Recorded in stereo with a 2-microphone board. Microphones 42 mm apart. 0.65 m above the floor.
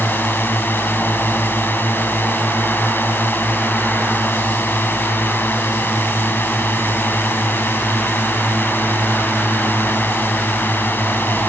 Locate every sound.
0.0 s a drone: 55° left (ahead or behind)